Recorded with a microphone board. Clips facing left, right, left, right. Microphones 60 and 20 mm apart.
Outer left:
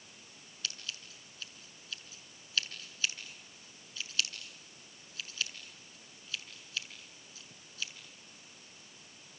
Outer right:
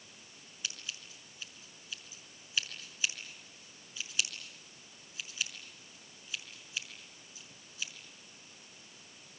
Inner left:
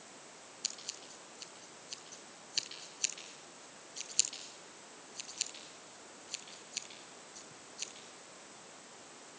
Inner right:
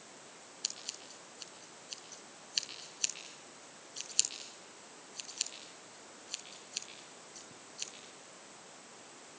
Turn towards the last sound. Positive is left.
turn(degrees=-15)  # may be behind; listen again after turning